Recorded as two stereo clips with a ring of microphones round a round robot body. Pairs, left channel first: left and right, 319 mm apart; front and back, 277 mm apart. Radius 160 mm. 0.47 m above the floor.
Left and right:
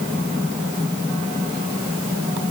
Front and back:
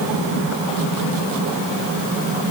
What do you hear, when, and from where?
Only background noise.